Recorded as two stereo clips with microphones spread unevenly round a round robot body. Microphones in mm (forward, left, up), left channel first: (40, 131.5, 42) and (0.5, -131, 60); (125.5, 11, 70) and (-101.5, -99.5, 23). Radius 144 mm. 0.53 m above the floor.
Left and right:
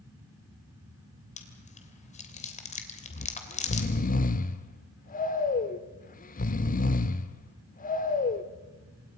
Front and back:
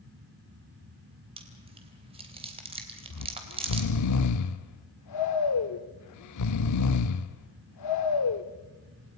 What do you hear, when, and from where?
1.4 s chewing: 145° left, 2.5 m
3.1 s snoring: 25° left, 1.2 m